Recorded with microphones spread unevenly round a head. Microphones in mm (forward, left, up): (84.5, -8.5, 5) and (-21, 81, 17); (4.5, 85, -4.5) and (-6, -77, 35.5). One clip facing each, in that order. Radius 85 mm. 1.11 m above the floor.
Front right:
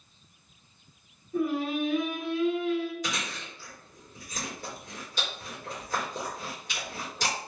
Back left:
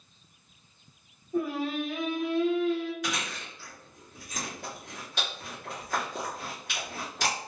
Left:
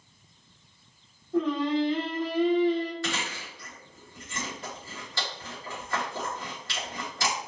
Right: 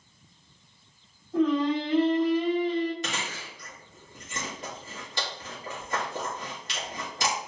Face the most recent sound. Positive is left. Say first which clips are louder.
# back left 1 dB, left 2 dB
turn(degrees=-165)